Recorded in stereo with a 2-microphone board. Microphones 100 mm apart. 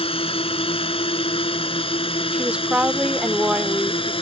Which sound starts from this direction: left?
A drone, at 0.0 s.